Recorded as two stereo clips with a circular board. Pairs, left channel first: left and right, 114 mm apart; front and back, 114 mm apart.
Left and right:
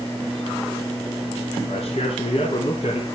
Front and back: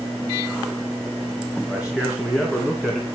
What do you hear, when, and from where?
1.7 s a man speaking: 95° left, 4 m; by 3.0 s 80° left, 3 m